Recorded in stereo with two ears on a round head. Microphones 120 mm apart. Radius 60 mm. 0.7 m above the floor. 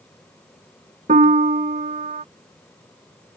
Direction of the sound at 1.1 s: 50° right (ahead or behind).